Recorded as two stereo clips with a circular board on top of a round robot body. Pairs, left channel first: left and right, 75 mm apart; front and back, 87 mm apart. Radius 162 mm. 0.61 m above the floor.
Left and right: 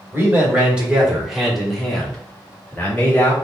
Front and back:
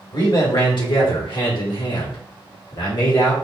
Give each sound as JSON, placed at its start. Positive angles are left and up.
{"t": 0.1, "sound": "a man speaking", "azimuth_deg": -25, "distance_m": 2.0}